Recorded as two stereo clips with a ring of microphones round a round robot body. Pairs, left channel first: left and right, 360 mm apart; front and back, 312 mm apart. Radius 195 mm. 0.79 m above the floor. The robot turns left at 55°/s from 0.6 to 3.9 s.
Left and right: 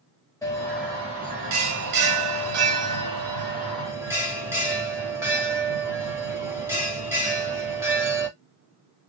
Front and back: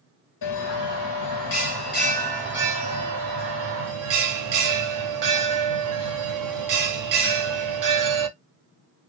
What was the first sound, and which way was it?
A bell, 10° left.